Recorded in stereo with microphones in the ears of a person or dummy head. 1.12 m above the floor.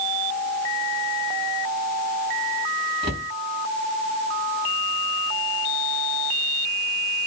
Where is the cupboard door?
30° right (ahead or behind), 4.5 m.